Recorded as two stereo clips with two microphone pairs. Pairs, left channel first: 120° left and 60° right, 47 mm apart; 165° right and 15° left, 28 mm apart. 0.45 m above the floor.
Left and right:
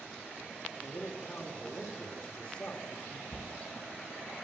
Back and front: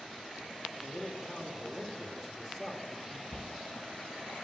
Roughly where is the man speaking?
Left.